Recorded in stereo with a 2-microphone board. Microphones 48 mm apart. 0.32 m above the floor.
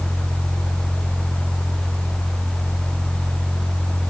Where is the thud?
I don't hear a thud.